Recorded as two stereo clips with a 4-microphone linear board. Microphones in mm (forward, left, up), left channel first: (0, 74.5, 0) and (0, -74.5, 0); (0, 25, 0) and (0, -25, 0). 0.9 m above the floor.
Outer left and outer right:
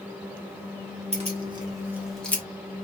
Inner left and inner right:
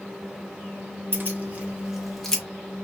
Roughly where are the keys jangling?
Right.